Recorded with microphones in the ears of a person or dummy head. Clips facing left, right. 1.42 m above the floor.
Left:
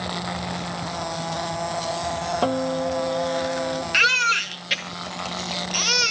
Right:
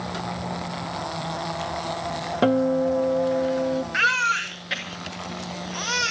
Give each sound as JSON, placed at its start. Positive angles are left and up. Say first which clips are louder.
{"t": 2.4, "sound": "a guitar", "louder": "right 5 dB", "side_deg": -20, "distance_m": 0.9}
{"t": 3.9, "sound": "a baby crying", "louder": "left 1 dB", "side_deg": 40, "distance_m": 1.9}